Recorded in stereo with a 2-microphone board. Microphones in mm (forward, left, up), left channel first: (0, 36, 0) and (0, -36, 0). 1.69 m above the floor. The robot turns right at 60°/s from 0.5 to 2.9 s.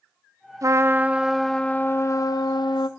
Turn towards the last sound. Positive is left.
turn(degrees=95)